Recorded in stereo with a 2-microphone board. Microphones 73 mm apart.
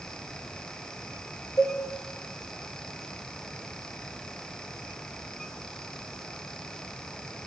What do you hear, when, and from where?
1.6 s a cowbell: 60° left (ahead or behind), 2 m